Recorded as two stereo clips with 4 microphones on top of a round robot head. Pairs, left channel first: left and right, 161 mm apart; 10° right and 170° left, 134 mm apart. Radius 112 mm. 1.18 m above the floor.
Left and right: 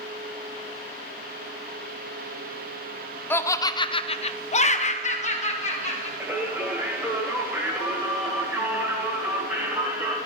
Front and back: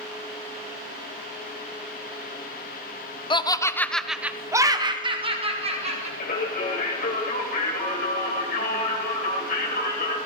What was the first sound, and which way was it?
Laughter, 20° left.